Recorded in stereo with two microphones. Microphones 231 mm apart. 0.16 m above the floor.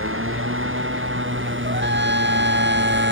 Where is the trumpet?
55° right (ahead or behind).